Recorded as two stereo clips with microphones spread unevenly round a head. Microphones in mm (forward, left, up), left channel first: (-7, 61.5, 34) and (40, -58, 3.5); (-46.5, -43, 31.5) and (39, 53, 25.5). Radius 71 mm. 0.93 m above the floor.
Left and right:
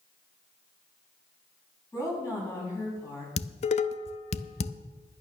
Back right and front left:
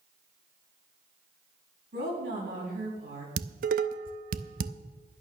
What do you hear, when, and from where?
1.9 s a woman speaking: 45° left, 7 m
3.4 s dishes clattering: 70° left, 0.6 m